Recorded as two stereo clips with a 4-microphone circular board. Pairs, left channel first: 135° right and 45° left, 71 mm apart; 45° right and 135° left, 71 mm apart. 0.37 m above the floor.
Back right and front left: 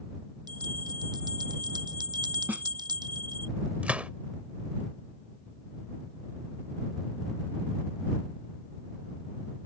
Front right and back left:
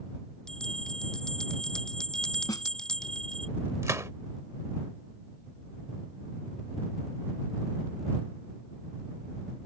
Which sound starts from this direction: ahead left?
A bell, at 0.5 s.